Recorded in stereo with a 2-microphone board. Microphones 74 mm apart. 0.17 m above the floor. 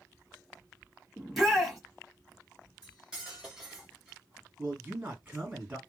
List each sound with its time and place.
1.2 s a shout: 5° right (ahead or behind), 1.4 m
2.8 s cutlery clinking: 10° right (ahead or behind), 1.5 m
4.6 s a man speaking: 20° right (ahead or behind), 1.9 m